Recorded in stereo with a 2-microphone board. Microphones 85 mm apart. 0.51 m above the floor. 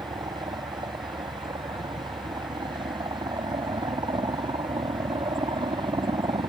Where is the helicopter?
60° right (ahead or behind); by 6.5 s 65° right (ahead or behind).